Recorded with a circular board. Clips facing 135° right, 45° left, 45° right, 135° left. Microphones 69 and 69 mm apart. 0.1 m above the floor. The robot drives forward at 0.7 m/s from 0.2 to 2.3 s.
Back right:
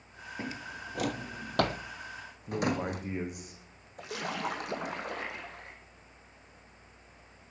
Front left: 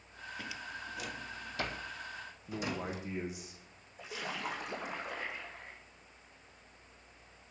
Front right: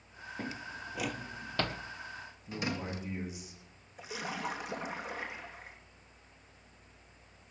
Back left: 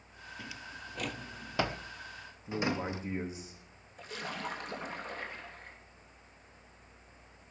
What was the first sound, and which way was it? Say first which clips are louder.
A drawer: back right 5 dB, front right 5 dB; 80° right.